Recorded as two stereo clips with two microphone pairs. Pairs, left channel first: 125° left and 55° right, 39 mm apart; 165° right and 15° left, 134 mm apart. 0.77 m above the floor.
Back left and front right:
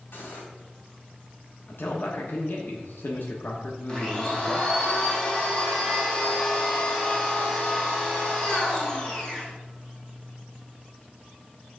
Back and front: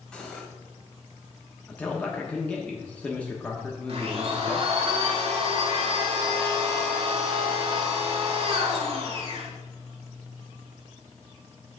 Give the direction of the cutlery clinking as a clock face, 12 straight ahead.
8 o'clock.